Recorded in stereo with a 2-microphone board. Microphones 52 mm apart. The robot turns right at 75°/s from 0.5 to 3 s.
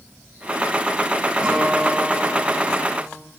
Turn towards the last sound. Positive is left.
turn(degrees=105)